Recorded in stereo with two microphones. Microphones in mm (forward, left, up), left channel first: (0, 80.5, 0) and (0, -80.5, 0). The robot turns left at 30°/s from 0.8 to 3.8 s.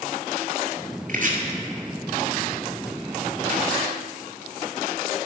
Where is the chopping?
55° right (ahead or behind), 1.6 m.